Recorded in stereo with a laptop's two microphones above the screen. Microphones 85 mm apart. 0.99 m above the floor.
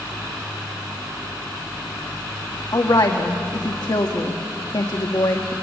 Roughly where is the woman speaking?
Left.